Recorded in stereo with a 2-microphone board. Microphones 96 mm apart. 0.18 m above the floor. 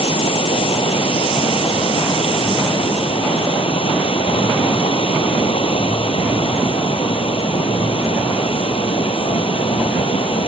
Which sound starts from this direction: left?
Running water, at 0.0 s.